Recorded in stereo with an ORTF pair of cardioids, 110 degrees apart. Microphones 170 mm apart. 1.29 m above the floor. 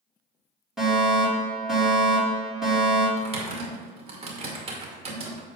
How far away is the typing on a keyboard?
About 2 m.